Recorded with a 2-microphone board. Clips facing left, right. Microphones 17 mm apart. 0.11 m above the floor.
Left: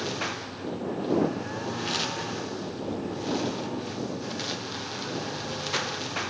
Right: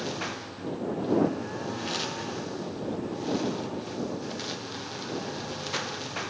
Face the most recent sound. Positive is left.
turn(degrees=10)  # may be behind; listen again after turning